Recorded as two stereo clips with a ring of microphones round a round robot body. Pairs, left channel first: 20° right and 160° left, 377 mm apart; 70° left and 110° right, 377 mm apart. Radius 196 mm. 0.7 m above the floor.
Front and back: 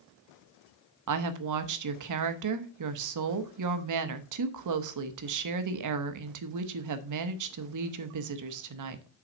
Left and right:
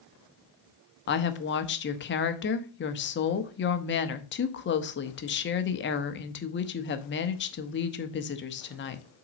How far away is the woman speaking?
About 0.9 m.